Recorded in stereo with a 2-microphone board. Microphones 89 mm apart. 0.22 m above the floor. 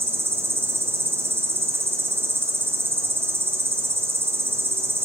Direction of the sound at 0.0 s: 25° right (ahead or behind).